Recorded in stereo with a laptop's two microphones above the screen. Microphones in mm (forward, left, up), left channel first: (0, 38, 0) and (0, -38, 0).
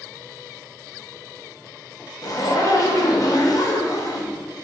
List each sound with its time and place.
2.2 s a zipper: 50° left (ahead or behind), 1.0 m